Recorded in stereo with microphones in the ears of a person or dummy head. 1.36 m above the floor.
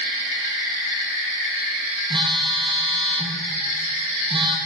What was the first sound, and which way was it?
A phone buzzing, 25° right (ahead or behind).